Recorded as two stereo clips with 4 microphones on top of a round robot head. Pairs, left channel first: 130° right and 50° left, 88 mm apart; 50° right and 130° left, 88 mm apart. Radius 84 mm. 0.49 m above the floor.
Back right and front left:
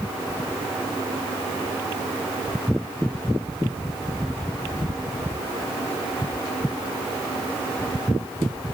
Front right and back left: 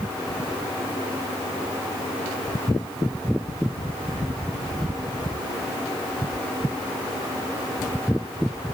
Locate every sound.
Only background noise.